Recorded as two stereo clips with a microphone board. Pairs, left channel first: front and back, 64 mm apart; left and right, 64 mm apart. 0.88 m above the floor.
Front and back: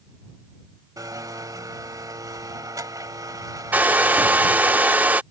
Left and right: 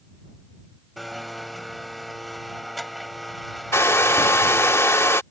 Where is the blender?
Straight behind.